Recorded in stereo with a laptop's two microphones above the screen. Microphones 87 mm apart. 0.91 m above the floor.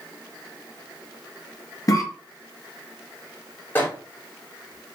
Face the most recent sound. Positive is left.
turn(degrees=25)  # may be behind; listen again after turning